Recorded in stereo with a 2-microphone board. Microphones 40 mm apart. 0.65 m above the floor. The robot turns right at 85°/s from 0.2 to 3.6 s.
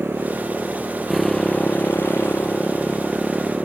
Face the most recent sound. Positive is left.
turn(degrees=-30)  # may be behind; listen again after turning